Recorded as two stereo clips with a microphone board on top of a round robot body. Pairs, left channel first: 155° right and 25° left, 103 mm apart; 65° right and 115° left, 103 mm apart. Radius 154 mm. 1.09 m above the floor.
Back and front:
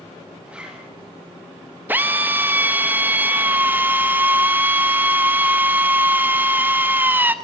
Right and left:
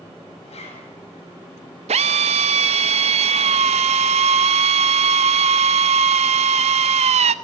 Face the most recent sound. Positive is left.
turn(degrees=95)